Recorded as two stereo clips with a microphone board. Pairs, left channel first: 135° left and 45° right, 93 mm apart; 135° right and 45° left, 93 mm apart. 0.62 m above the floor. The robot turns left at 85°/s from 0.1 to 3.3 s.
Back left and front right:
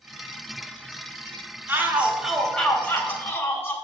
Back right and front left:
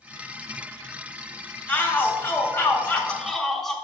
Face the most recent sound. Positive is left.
turn(degrees=145)